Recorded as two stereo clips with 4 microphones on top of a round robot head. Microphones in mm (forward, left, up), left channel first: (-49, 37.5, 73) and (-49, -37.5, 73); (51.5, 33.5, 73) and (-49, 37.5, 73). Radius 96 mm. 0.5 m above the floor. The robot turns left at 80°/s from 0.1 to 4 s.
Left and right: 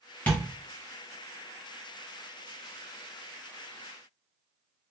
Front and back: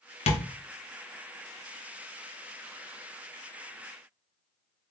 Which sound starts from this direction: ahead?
Tapping, at 0.3 s.